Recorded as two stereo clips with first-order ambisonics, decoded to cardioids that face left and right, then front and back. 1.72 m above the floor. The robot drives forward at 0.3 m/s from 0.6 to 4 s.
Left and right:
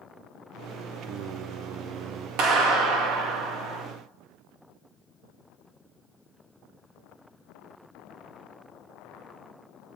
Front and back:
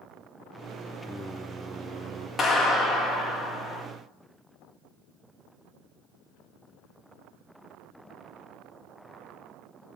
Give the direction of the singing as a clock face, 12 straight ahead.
3 o'clock.